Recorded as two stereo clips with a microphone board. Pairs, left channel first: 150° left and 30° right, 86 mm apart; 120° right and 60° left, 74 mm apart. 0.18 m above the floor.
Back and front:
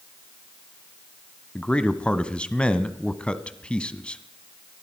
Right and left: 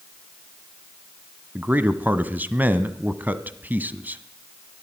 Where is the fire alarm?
I don't hear a fire alarm.